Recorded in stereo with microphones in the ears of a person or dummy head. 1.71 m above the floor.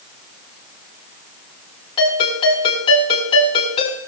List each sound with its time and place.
2.0 s a ringtone: 25° left (ahead or behind), 8 m